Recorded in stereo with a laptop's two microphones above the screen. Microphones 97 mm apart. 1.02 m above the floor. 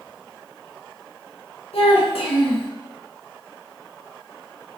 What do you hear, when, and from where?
1.7 s a child speaking: 75° left (ahead or behind), 0.7 m